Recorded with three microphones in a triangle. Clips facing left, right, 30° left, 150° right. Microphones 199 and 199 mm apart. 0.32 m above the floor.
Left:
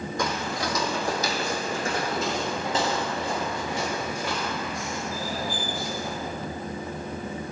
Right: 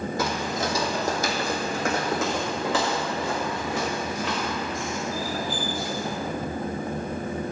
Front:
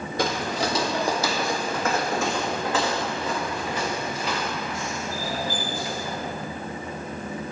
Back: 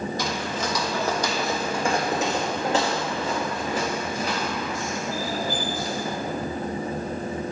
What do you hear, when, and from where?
0.2 s footsteps: 5° right, 0.7 m; by 6.2 s 100° right, 3.5 m